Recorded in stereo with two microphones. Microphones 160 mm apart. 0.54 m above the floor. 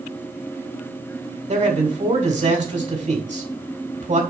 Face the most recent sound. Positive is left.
turn(degrees=-50)  # may be behind; listen again after turning